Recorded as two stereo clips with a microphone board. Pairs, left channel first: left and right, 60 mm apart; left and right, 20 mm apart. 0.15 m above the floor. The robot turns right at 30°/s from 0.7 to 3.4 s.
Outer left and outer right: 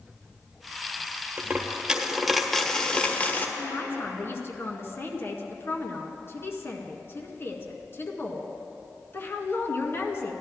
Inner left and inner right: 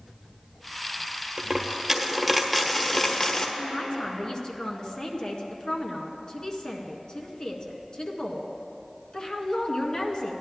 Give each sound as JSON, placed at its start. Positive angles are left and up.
{"t": 1.4, "sound": "a dropped coin", "azimuth_deg": -30, "distance_m": 1.2}
{"t": 3.6, "sound": "a man speaking", "side_deg": 40, "distance_m": 1.6}